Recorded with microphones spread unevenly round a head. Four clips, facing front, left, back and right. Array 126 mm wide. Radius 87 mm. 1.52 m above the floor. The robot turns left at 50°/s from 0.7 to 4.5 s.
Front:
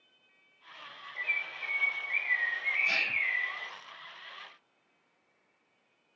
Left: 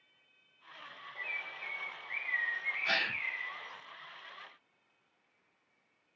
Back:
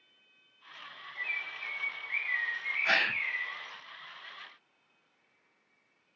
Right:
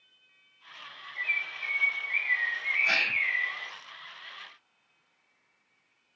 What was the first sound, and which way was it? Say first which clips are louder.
A bird: right 8 dB, front 2 dB; 40° left.